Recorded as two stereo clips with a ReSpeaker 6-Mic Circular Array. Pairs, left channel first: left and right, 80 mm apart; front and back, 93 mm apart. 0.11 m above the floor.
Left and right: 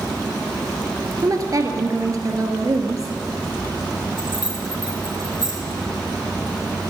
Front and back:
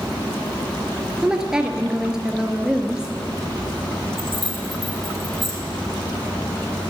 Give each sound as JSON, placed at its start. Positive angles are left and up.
{"t": 1.2, "sound": "a woman speaking", "azimuth_deg": -100, "distance_m": 1.5}
{"t": 4.2, "sound": "keys jangling", "azimuth_deg": 90, "distance_m": 3.0}